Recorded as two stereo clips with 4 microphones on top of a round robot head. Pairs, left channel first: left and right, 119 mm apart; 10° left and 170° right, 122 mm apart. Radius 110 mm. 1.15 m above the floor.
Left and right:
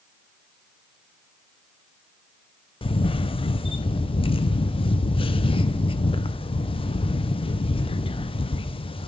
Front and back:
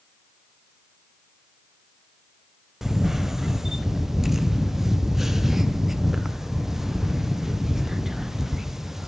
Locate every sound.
2.8 s a camera shutter: 100° left, 0.7 m